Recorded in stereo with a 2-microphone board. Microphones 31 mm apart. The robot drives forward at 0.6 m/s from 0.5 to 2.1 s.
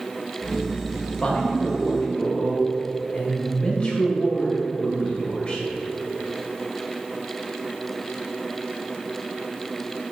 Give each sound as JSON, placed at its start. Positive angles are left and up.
{"t": 1.2, "sound": "a man speaking", "side_deg": 45, "distance_m": 1.6}